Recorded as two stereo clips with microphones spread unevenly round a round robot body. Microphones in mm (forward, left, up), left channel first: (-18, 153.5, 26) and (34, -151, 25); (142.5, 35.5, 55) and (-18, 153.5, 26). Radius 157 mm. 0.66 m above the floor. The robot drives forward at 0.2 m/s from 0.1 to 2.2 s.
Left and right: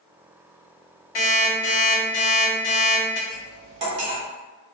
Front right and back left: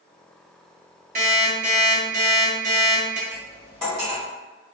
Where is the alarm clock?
105° left, 1.3 m; by 3.2 s 110° left, 1.3 m.